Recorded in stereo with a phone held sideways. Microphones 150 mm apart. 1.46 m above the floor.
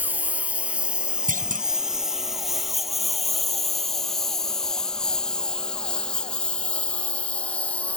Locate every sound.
0.0 s a lawn mower: 10° right (ahead or behind); by 8.0 s 10° left (ahead or behind)
1.3 s a clunk: 65° right (ahead or behind)